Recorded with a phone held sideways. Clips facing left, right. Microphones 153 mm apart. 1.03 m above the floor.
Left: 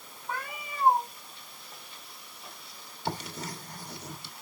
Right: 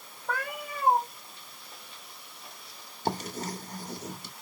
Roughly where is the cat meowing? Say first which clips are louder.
Right 4 dB; right.